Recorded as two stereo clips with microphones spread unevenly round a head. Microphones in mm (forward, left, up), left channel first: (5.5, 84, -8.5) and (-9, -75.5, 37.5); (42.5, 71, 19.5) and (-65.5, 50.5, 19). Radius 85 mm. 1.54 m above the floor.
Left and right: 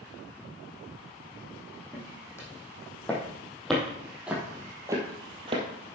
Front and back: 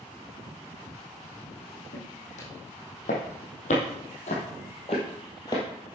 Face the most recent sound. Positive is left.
turn(degrees=-55)